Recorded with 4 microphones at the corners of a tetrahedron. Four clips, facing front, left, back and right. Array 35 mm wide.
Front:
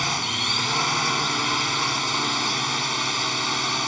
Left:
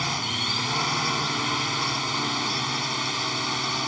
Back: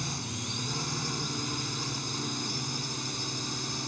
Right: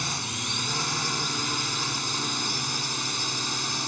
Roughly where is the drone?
Ahead.